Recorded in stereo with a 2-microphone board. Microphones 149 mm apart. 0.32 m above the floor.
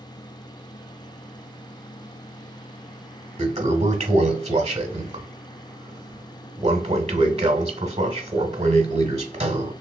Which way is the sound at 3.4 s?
40° right (ahead or behind).